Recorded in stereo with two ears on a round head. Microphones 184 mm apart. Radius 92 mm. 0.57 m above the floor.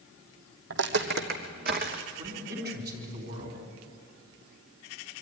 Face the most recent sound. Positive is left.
turn(degrees=-50)  # may be behind; listen again after turning